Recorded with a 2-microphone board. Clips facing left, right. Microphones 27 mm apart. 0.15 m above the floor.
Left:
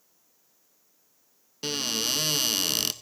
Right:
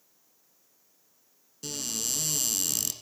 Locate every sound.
1.6 s a cupboard door: 50° left (ahead or behind), 0.6 m